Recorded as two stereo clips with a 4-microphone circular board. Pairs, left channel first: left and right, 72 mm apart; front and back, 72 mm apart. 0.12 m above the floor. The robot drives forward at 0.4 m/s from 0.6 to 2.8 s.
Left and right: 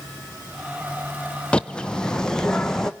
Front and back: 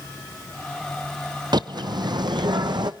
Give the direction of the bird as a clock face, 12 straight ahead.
6 o'clock.